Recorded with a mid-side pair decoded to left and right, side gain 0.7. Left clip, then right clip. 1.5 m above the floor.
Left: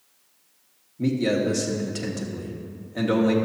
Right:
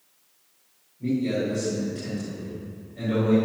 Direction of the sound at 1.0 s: 70° left.